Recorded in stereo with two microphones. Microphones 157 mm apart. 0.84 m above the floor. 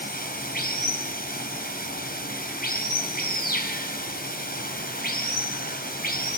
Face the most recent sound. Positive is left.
turn(degrees=75)  # may be behind; listen again after turning